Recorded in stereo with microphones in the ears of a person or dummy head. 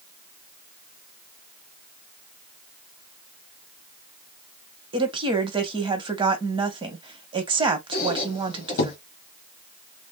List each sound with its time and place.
4.9 s a woman speaking: 25° right (ahead or behind), 1.2 m
7.9 s a squeak: 45° left (ahead or behind), 1.3 m